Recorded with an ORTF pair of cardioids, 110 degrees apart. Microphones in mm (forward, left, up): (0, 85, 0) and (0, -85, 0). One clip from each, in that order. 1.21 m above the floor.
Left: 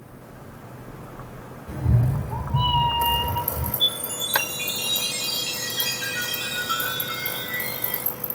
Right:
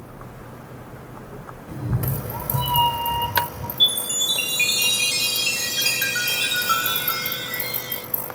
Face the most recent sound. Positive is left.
turn(degrees=-50)